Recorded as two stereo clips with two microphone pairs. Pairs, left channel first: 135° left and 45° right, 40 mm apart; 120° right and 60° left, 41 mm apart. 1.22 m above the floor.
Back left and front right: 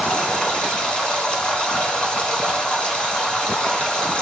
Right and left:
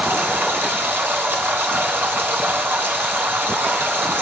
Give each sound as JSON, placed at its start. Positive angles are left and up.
{"t": 0.0, "sound": "running water", "azimuth_deg": 80, "distance_m": 2.0}